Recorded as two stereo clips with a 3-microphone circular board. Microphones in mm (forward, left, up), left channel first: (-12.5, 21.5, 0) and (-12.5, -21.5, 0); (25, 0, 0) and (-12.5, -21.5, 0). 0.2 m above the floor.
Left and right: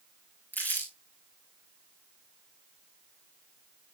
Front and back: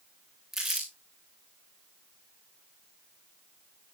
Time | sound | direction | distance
0.5 | crumpling | 125° left | 7 m